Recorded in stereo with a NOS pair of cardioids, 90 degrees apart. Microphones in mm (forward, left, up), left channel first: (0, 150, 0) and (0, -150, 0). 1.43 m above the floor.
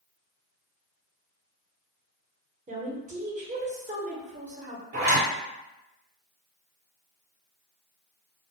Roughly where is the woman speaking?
Ahead right.